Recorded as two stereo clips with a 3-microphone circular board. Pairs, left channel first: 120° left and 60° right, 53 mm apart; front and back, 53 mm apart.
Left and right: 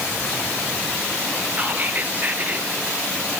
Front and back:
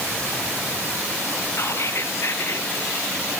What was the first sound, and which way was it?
Whispering, 10° right.